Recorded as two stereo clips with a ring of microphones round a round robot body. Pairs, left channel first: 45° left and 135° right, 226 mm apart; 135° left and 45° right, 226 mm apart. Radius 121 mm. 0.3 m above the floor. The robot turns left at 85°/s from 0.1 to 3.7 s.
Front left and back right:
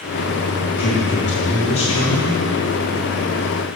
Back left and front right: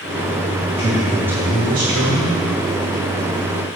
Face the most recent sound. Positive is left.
turn(degrees=-170)